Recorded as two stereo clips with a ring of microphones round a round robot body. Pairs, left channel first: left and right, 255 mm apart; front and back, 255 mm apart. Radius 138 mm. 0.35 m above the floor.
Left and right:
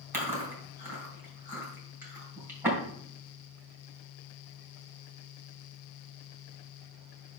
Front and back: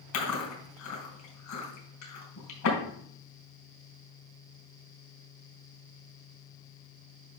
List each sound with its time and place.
0.1 s chewing: 10° right, 4 m